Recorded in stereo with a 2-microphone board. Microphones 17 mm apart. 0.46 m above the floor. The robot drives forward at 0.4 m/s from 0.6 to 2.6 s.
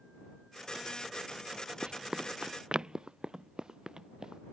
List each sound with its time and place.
1.8 s running footsteps: 70° right (ahead or behind); by 4.4 s 45° right (ahead or behind)